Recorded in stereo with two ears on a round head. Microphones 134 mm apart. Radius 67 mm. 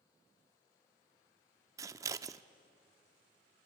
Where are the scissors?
20° right (ahead or behind), 0.5 m.